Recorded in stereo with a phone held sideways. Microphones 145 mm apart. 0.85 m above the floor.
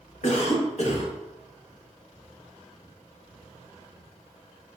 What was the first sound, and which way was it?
A cough, 55° left (ahead or behind).